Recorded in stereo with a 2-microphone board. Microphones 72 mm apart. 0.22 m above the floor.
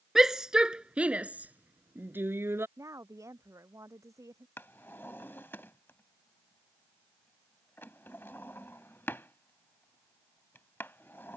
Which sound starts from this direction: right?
A woman speaking, at 2.8 s.